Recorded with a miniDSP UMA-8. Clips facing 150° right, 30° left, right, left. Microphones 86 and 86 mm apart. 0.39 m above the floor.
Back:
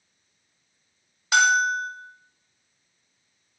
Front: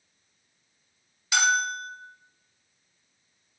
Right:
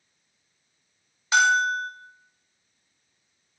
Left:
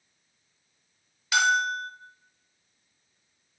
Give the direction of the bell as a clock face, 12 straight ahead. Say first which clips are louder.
Back 5 dB, right 3 dB; 5 o'clock.